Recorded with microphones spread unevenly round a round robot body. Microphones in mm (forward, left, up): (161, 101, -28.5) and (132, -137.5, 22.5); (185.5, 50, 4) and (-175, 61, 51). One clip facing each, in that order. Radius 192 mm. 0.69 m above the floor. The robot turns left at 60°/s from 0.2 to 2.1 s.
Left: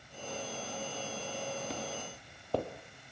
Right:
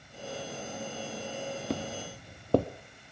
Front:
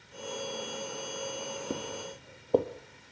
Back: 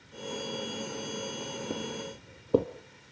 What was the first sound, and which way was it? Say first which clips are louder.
Footsteps: right 6 dB, back 1 dB; 90° right.